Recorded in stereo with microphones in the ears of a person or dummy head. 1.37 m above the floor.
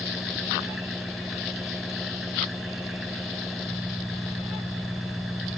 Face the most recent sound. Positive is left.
turn(degrees=0)  # may be behind; listen again after turning